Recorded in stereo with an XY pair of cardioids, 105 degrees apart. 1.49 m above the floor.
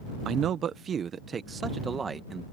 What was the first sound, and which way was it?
A man speaking, 70° right.